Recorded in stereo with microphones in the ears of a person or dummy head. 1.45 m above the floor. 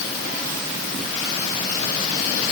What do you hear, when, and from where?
Only background noise.